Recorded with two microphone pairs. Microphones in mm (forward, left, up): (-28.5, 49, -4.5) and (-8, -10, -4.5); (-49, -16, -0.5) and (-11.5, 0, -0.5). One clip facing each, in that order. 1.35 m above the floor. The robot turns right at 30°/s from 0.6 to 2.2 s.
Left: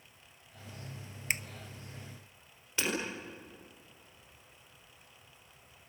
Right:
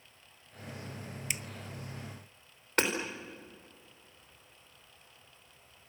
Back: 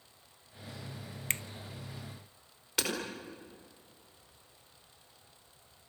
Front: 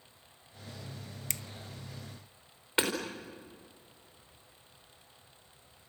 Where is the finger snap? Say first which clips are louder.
Left 5 dB, back 7 dB; 155° left, 0.7 m.